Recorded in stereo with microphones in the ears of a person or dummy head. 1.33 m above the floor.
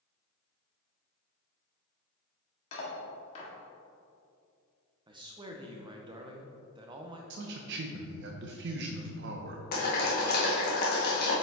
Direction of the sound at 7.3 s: 55° right (ahead or behind).